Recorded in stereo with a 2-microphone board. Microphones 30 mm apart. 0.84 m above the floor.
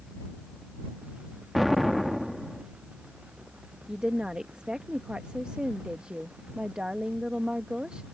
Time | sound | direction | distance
1.6 | an explosion | centre (ahead or behind) | ?
3.9 | a woman speaking | 25° right (ahead or behind) | ?